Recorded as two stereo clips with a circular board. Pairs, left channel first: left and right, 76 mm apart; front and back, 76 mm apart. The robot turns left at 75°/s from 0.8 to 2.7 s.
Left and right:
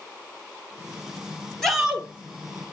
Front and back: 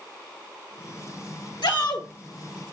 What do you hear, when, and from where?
1.6 s a shout: 5° left, 1.3 m; by 2.1 s 30° right, 1.3 m